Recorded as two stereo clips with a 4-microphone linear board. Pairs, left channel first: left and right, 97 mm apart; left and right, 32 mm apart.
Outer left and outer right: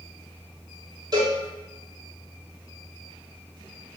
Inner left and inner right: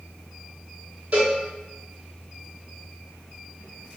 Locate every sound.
1.1 s a cowbell: 45° right (ahead or behind), 0.9 m